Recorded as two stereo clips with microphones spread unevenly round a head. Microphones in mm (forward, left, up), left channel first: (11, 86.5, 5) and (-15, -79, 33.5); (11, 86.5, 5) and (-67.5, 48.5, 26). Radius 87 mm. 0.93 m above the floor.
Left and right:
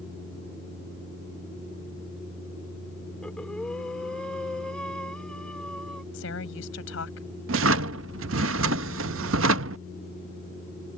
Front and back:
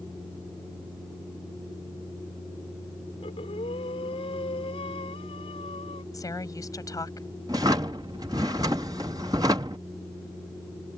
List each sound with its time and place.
3.2 s breathing: 5° right
6.1 s a woman speaking: 75° left
7.5 s a drawer: 85° right